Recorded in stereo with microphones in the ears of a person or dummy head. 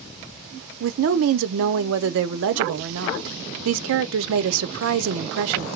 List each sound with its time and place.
0.8 s a woman speaking: 70° right (ahead or behind), 0.6 m